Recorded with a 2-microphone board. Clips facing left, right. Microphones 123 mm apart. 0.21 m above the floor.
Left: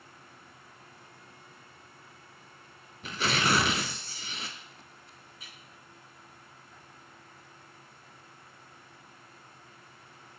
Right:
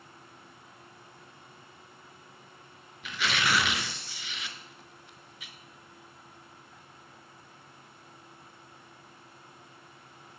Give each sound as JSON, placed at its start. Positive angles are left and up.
{"t": 3.0, "sound": "tearing paper", "side_deg": 40, "distance_m": 0.7}